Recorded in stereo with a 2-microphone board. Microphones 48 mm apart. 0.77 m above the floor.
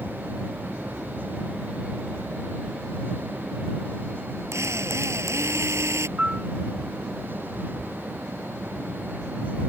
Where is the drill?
85° right.